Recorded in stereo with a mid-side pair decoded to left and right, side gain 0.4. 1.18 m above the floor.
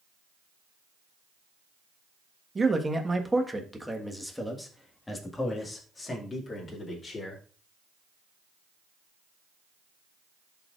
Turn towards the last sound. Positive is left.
turn(degrees=45)